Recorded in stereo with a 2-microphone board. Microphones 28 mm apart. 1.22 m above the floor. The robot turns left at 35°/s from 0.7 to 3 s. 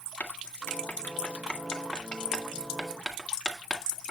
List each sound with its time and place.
0.2 s writing: 70° left (ahead or behind), 2.0 m; by 4.1 s 10° right (ahead or behind), 2.0 m